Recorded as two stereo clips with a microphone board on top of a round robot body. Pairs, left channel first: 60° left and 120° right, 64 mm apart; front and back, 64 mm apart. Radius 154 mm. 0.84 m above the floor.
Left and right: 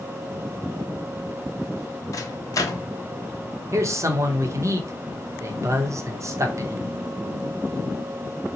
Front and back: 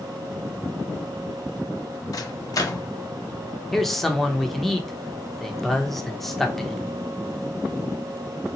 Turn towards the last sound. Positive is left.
turn(degrees=-85)